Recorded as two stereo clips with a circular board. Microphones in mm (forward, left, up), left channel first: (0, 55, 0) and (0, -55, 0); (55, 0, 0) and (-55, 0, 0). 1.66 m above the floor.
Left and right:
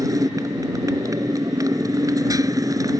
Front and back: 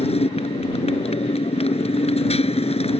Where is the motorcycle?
30° right.